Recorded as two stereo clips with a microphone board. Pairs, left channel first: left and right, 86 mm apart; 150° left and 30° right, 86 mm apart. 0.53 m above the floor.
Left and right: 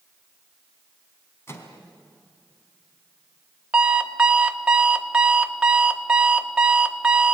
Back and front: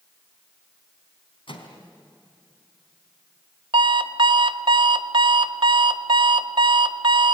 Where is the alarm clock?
15° right, 1.0 m.